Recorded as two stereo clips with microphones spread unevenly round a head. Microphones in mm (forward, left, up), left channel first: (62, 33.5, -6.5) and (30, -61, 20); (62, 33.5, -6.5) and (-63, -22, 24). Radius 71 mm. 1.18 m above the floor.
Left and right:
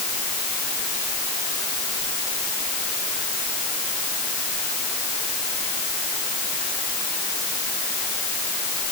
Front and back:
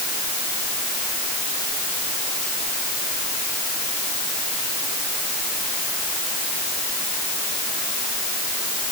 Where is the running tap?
I don't hear a running tap.